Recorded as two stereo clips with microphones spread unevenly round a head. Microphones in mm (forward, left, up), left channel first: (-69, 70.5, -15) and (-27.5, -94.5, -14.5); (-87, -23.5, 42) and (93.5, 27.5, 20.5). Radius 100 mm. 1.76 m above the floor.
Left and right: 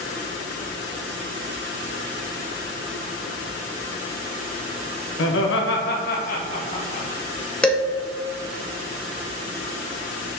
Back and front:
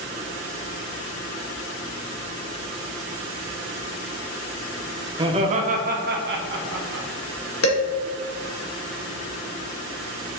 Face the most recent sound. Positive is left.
turn(degrees=-170)